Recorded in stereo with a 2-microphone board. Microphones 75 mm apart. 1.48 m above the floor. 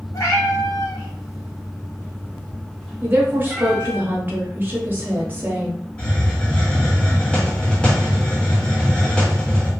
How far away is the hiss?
About 1.3 m.